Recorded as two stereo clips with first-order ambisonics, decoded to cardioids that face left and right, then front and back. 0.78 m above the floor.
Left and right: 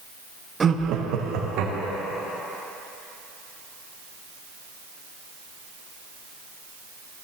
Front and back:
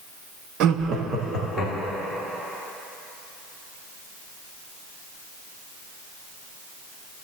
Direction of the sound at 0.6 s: 160° right.